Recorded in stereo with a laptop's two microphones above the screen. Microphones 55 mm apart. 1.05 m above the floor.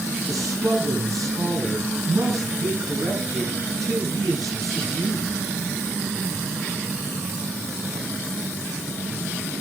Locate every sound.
0.3 s a man speaking: 85° right, 9 m